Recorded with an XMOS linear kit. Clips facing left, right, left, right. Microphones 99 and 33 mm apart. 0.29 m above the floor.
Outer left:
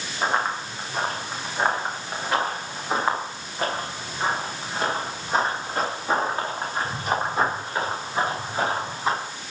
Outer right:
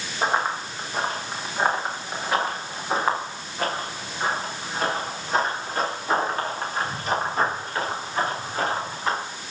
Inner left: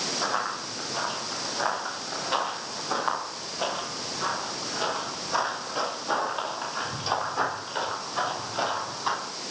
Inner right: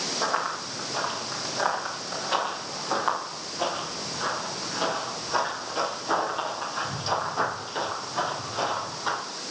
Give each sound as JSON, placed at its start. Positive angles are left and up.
{"t": 0.2, "sound": "running footsteps", "side_deg": -10, "distance_m": 7.0}